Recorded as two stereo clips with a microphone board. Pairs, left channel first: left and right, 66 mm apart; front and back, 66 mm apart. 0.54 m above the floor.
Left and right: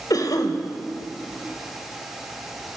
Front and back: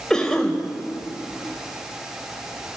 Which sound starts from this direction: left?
A cough, at 0.1 s.